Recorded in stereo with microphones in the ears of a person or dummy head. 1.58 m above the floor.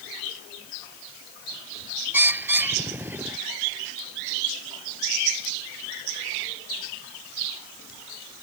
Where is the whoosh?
No whoosh in this recording.